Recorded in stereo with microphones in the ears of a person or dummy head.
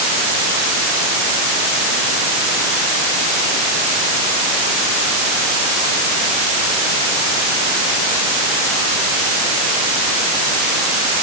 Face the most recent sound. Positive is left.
No sound to turn to.